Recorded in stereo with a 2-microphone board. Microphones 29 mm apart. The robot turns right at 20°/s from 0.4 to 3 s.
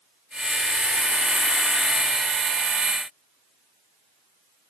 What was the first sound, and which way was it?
Only background noise.